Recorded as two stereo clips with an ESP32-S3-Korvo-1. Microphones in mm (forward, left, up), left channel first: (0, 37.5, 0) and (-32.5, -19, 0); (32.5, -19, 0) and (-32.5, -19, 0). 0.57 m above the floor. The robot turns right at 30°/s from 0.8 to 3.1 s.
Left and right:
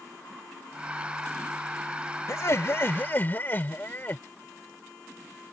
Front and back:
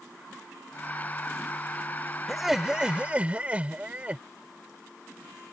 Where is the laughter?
90° left; by 4.2 s 115° left.